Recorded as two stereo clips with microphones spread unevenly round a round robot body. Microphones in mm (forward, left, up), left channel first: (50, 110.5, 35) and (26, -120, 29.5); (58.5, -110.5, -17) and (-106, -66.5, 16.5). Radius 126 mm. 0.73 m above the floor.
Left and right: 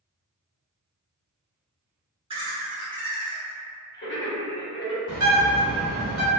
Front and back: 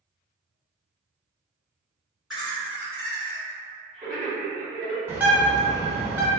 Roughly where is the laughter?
Right.